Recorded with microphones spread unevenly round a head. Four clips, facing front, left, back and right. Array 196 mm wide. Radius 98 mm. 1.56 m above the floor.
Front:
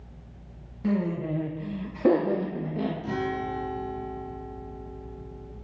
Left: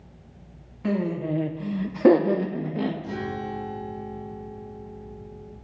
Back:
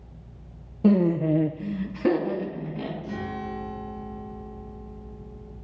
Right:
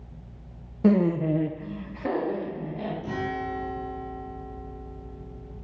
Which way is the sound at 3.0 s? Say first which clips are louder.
Right 1 dB, front 3 dB; 10° right.